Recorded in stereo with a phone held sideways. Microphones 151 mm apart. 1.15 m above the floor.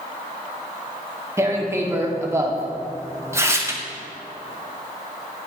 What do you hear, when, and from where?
1.4 s tearing paper: 20° right (ahead or behind), 0.8 m